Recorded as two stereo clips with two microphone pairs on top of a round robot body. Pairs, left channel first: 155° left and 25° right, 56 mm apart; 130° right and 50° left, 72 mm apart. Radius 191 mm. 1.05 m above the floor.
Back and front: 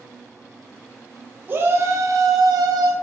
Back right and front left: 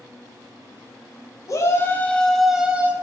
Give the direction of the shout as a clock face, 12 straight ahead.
3 o'clock.